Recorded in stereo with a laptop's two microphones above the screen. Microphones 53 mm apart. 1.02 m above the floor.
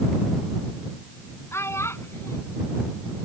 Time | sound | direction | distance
1.5 | a child speaking | 55° left (ahead or behind) | ?